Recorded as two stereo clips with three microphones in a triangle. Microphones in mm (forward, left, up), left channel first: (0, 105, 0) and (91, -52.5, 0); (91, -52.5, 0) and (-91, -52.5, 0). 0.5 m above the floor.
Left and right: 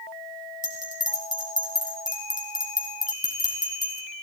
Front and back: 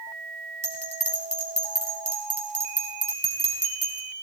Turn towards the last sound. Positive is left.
turn(degrees=-125)